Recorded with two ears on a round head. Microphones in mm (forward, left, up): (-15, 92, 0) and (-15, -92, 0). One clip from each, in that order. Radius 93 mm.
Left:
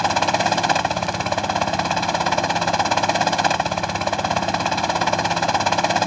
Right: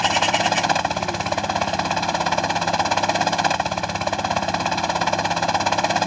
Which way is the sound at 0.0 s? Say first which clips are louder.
Even; centre (ahead or behind).